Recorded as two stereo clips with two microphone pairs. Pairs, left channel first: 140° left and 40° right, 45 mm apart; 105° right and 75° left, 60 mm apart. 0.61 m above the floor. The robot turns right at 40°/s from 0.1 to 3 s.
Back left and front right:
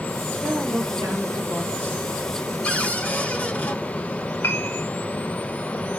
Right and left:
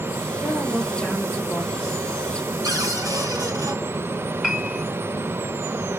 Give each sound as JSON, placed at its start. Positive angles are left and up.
{"t": 0.4, "sound": "a woman speaking", "azimuth_deg": -75, "distance_m": 2.5}
{"t": 2.6, "sound": "a cupboard door", "azimuth_deg": 75, "distance_m": 4.0}
{"t": 4.4, "sound": "a piano", "azimuth_deg": 155, "distance_m": 2.0}